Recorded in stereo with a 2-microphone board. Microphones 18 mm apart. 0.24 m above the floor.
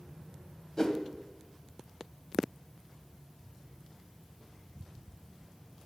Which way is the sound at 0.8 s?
30° left (ahead or behind).